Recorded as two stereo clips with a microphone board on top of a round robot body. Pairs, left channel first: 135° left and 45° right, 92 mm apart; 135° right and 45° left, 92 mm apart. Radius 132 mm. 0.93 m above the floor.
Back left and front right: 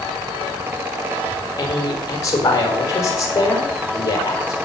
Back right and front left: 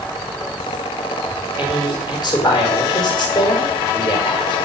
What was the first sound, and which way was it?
A man speaking, 170° right.